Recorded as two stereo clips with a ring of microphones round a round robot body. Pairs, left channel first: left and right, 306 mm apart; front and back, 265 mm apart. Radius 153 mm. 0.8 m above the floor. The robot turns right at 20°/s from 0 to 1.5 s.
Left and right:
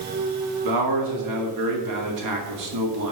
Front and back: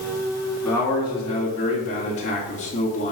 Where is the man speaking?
85° right, 2.5 m; by 3.1 s 65° right, 2.5 m.